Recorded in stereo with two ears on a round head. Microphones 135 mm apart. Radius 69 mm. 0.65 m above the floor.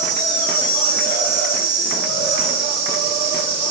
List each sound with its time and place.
0.0 s an insect: 45° right (ahead or behind), 4 m